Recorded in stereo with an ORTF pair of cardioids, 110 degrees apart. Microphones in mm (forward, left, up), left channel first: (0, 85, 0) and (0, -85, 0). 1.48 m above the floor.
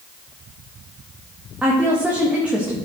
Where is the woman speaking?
10° right, 1.9 m.